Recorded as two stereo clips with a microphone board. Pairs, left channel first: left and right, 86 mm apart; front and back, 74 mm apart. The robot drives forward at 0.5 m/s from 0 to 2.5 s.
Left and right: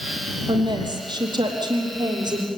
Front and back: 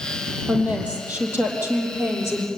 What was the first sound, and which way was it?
A woman speaking, 105° right.